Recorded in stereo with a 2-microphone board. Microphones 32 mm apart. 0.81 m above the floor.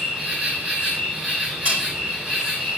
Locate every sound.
0.0 s an insect: 35° right (ahead or behind), 2.5 m
1.6 s cutlery clinking: 55° right (ahead or behind), 3.5 m